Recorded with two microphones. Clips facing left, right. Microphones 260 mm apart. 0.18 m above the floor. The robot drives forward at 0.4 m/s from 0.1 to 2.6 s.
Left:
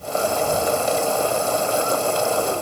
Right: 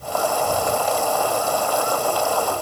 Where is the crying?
I don't hear crying.